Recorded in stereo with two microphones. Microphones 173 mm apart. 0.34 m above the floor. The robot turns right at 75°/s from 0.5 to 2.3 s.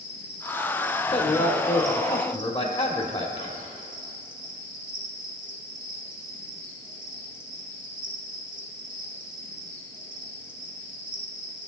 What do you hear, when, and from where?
0.0 s an insect: 100° left, 1.9 m; by 11.7 s 125° right, 1.9 m
1.1 s a man speaking: 45° left, 1.1 m; by 3.3 s 135° left, 1.1 m
3.4 s whispering: 30° left (ahead or behind), 1.7 m